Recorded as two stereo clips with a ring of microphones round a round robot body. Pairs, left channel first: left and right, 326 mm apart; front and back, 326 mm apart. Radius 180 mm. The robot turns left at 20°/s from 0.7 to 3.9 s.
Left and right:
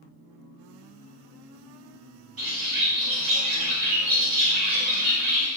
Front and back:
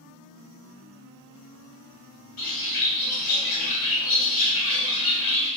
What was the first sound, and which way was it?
A bird, 45° right.